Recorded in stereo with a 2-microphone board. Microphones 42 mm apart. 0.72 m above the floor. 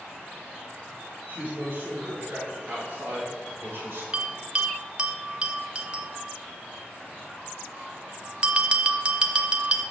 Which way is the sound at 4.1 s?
25° right (ahead or behind).